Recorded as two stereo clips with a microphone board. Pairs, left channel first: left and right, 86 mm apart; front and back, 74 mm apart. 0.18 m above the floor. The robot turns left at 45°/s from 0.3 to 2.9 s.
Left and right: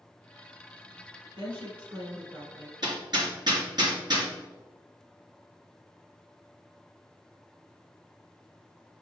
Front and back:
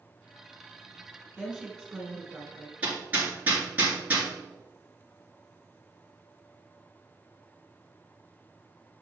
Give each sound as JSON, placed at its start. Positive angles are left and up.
{"t": 1.4, "sound": "a woman speaking", "azimuth_deg": -80, "distance_m": 3.5}
{"t": 2.8, "sound": "hammering", "azimuth_deg": -110, "distance_m": 2.5}